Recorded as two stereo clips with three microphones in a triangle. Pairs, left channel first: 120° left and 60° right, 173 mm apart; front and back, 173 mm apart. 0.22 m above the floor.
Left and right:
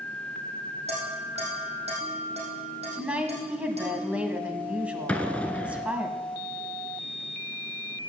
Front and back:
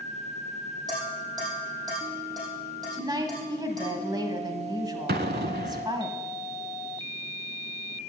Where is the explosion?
160° right, 0.6 m.